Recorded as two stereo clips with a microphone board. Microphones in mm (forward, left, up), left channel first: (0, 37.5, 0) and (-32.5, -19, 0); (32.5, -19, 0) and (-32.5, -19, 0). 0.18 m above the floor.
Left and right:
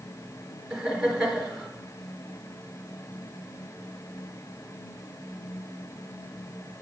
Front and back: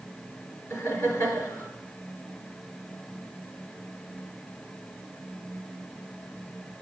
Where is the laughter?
40° right, 3 m.